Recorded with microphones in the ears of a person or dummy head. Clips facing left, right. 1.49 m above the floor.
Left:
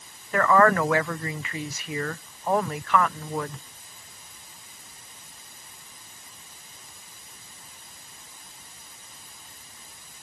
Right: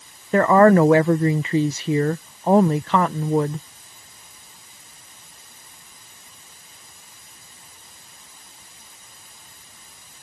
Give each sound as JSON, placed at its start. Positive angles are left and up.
{"t": 0.3, "sound": "a woman speaking", "side_deg": -30}